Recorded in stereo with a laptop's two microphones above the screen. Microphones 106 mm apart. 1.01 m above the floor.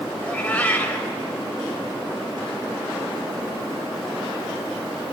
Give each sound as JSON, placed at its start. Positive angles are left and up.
{"t": 0.2, "sound": "a cat meowing", "side_deg": 15, "distance_m": 1.6}